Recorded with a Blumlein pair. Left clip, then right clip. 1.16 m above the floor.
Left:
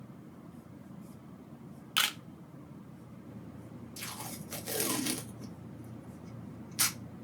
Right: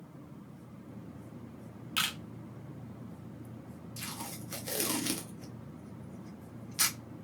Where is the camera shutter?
15° left, 0.5 m.